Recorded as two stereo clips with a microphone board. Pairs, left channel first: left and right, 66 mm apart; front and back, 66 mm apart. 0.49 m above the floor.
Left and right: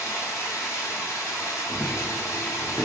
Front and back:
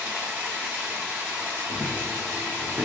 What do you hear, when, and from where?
0.0 s running water: 120° left, 1.5 m
1.7 s running footsteps: 165° left, 1.0 m; by 2.9 s 135° right, 1.1 m